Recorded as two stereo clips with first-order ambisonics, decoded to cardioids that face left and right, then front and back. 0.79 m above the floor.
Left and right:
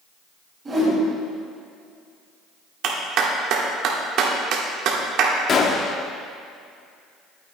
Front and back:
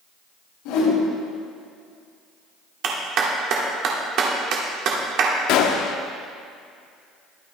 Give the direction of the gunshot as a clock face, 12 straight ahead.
11 o'clock.